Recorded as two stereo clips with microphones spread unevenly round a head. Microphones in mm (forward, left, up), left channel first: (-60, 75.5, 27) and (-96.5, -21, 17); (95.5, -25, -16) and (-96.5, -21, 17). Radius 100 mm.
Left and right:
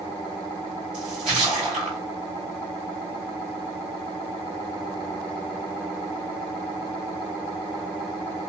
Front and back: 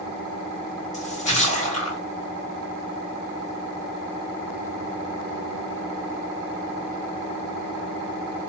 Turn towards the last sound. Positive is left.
turn(degrees=-55)